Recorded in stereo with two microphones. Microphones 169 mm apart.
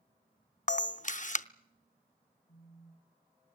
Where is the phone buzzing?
80° left, 5 m.